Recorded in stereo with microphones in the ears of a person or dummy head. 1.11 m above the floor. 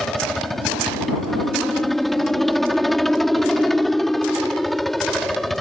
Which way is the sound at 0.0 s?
Centre (ahead or behind).